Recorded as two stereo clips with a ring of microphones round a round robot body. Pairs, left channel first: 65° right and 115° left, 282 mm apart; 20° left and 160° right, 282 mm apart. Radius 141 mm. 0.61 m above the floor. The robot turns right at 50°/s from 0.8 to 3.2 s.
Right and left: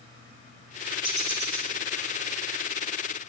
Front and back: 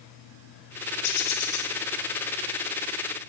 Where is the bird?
40° left, 1.9 m; by 1.7 s 75° left, 1.9 m.